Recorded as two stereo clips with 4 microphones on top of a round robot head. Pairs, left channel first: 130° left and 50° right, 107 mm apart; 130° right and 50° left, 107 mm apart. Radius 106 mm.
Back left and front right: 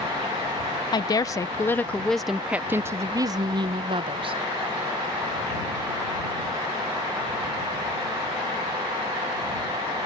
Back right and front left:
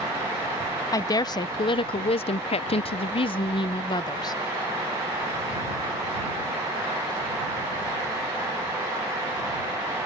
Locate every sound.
0.9 s a woman speaking: 175° left; by 4.4 s 80° right